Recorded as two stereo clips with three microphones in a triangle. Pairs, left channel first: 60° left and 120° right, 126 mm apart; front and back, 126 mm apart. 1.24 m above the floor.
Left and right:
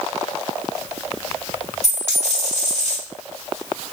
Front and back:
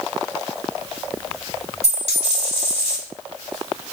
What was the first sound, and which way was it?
A dropped coin, 35° left.